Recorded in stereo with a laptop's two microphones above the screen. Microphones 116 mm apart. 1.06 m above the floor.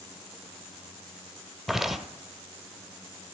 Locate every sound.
1.7 s footsteps: centre (ahead or behind), 1.1 m